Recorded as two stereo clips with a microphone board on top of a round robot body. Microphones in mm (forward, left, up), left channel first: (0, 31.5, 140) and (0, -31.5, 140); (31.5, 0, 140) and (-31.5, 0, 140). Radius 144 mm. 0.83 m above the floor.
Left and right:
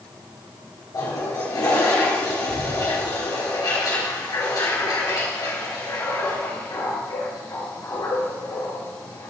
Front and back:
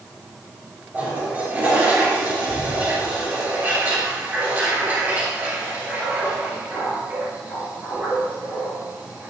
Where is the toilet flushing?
115° left, 3.5 m.